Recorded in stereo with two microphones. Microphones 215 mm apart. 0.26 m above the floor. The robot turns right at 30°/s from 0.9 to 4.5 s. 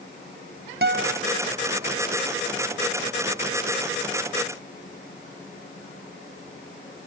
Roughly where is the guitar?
Right.